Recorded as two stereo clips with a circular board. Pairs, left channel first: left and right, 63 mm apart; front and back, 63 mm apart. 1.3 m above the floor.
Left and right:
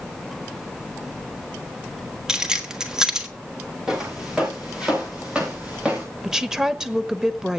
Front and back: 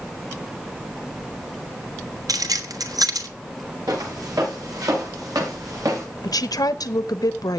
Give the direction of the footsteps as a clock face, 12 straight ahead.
6 o'clock.